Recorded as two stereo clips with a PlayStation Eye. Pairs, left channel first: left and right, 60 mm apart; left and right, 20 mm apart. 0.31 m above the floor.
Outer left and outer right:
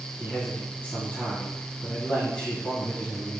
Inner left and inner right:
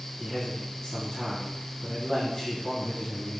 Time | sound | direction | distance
0.2 | a man speaking | 25° left (ahead or behind) | 2 m